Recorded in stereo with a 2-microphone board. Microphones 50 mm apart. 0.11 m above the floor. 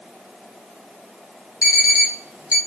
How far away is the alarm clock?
About 1.4 m.